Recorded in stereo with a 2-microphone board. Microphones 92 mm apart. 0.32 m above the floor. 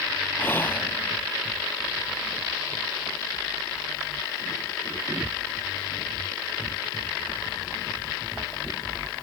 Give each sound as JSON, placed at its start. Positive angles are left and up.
{"t": 0.4, "sound": "whispering", "side_deg": 25}